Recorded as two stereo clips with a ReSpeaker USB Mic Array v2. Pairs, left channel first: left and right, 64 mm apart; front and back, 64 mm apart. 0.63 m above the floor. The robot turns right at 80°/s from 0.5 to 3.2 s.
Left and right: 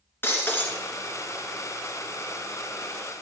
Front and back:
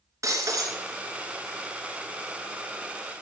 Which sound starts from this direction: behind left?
Breaking glass, at 0.2 s.